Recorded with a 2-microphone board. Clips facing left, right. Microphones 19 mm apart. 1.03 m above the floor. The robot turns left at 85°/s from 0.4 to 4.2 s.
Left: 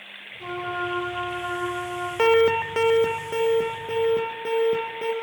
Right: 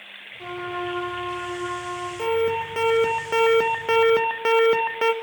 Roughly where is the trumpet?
Ahead right.